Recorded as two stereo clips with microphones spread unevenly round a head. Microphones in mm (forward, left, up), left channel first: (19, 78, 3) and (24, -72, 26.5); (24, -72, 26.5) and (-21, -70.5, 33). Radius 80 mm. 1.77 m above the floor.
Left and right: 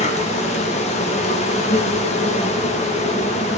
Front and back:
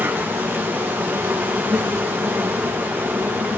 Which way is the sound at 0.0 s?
130° left.